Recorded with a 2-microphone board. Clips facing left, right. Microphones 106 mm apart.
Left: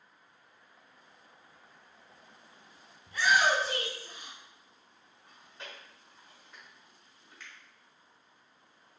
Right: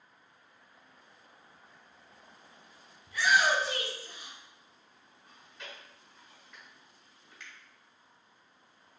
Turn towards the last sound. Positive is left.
turn(degrees=0)  # may be behind; listen again after turning